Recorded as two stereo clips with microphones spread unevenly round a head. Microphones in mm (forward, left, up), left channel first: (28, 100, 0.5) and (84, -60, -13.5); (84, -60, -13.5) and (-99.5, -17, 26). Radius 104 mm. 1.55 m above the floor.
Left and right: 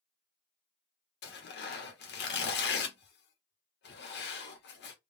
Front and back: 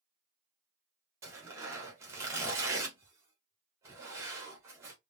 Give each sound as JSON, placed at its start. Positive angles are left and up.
{"t": 1.2, "sound": "tearing paper", "azimuth_deg": 90, "distance_m": 1.0}